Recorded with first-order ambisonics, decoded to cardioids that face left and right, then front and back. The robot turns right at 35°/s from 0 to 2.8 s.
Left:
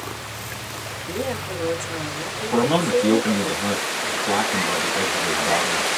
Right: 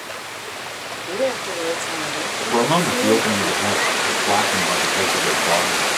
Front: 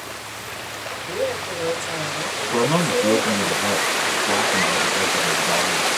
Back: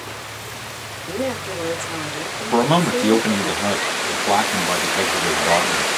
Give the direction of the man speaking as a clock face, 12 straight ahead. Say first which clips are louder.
Right 1 dB, back 3 dB; 6 o'clock.